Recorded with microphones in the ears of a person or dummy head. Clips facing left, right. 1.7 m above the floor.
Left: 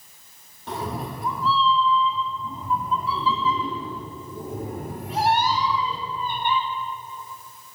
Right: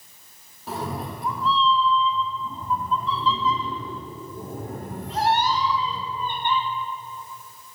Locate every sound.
0.7 s a cat meowing: centre (ahead or behind), 1.2 m; by 6.6 s 10° left (ahead or behind), 4.5 m